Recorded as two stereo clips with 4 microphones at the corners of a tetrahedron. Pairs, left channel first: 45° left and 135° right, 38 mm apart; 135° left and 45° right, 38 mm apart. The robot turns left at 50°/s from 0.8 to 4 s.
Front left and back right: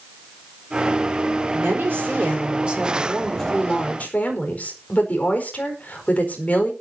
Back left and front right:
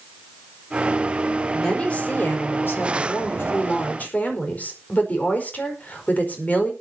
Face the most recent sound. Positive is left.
turn(degrees=90)